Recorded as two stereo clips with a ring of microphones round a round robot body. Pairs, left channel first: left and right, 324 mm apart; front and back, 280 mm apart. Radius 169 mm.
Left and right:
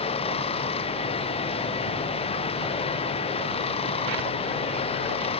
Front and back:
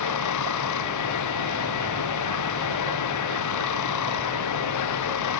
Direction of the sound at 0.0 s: 15° left.